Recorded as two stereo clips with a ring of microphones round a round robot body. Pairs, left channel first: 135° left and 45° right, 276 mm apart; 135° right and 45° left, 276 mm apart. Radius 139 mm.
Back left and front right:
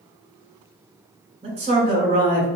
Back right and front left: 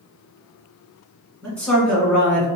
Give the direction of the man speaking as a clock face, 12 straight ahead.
2 o'clock.